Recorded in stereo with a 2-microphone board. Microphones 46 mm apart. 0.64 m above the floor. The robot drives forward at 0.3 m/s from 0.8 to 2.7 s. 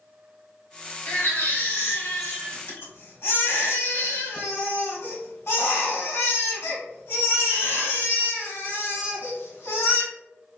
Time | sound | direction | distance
1.1 | a baby crying | 55° left (ahead or behind) | 1.4 m